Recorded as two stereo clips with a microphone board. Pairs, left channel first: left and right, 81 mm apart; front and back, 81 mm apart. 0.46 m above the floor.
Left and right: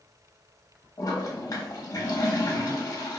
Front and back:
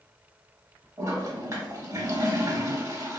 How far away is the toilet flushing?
About 0.7 m.